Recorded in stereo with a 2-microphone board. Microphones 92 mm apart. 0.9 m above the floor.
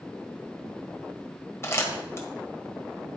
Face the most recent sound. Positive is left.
turn(degrees=30)  # may be behind; listen again after turning